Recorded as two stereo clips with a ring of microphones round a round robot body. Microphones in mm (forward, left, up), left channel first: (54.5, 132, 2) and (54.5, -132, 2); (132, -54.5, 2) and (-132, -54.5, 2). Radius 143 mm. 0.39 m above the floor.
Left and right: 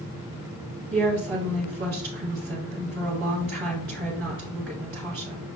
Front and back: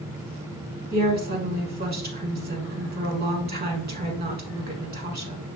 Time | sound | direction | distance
0.9 | a woman speaking | 135° right | 1.5 m